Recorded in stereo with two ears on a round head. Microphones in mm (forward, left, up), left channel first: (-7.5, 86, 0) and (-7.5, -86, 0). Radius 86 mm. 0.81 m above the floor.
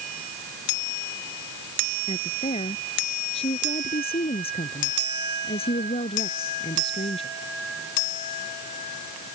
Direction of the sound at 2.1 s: 30° left (ahead or behind).